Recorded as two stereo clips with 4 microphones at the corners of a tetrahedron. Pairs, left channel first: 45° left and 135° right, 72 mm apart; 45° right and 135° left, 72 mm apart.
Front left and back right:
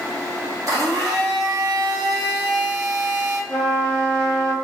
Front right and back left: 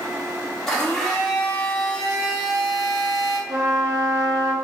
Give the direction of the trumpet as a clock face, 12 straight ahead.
8 o'clock.